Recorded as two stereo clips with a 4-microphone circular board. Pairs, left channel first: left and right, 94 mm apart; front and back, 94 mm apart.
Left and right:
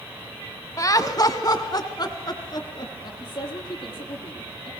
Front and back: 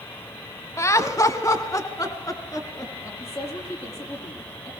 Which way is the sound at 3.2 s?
55° left.